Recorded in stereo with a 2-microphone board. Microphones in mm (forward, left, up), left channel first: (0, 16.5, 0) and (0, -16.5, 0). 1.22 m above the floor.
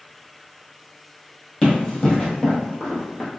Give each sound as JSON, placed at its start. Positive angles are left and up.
{"t": 1.6, "sound": "running footsteps", "side_deg": 15, "distance_m": 1.9}